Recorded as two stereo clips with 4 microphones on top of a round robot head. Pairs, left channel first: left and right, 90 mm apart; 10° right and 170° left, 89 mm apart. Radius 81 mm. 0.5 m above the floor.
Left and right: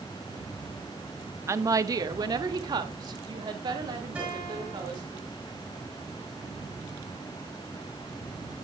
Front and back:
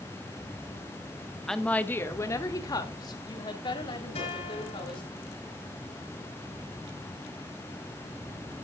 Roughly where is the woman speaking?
Right.